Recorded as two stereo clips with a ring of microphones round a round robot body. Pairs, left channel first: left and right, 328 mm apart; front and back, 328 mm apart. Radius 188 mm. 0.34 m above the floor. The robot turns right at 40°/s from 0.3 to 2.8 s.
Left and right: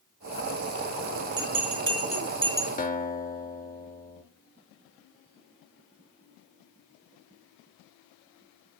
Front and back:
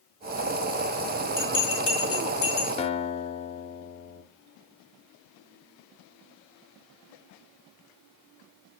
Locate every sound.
1.4 s a bell: 60° right, 2 m; by 2.7 s 10° right, 2 m
2.8 s a guitar: 50° left, 0.6 m